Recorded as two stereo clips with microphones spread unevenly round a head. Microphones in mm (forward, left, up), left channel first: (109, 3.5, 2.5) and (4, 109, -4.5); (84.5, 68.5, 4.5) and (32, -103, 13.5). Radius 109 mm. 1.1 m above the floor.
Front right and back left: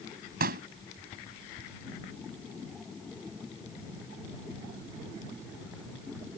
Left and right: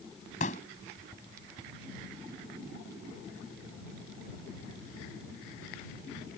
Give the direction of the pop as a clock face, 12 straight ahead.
8 o'clock.